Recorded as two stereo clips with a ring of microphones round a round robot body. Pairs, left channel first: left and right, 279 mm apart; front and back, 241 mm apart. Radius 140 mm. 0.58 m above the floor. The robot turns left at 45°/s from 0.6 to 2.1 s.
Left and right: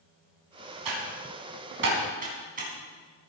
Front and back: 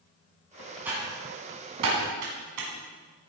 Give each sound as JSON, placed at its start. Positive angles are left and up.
{"t": 0.8, "sound": "typing on a keyboard", "azimuth_deg": -95, "distance_m": 4.0}